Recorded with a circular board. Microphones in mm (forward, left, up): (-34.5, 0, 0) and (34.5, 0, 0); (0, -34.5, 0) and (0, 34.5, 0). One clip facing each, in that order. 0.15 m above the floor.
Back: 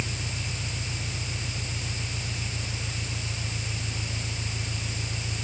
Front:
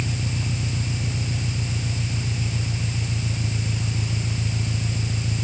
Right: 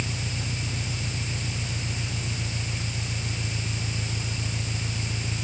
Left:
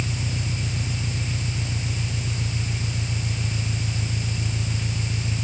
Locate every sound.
0.0 s an engine running: 5° left